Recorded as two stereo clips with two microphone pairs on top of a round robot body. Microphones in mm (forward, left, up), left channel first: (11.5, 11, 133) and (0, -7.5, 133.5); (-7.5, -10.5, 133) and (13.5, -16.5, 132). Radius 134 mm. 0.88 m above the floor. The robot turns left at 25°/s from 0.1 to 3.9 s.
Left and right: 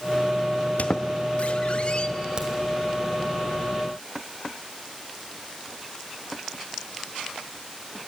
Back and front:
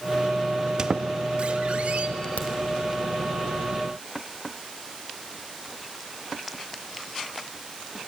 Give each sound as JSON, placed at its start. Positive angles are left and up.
{"t": 0.8, "sound": "a squeak", "azimuth_deg": 40, "distance_m": 0.9}
{"t": 2.4, "sound": "a crack", "azimuth_deg": -175, "distance_m": 1.8}